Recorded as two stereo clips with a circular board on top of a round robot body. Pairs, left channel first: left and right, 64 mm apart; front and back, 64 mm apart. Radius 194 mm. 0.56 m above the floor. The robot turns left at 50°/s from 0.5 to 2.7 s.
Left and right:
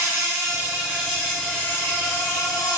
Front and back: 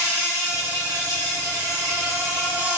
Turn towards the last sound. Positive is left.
turn(degrees=110)